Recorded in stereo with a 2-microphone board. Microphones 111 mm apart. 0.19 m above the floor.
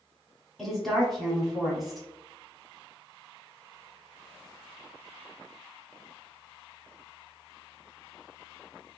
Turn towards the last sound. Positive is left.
turn(degrees=0)  # may be behind; listen again after turning